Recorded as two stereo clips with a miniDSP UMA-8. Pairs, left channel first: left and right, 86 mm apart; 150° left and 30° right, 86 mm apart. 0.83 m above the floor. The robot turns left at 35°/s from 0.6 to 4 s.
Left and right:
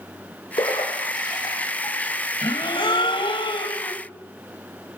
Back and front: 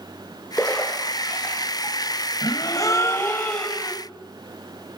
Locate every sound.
0.6 s a splash: 75° left, 8 m; by 2.0 s 25° left, 8 m
2.4 s a gasp: 115° left, 3 m; by 4.0 s 60° left, 3 m